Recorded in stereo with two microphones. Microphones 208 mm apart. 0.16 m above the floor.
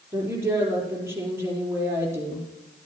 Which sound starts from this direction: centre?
A woman speaking, at 0.1 s.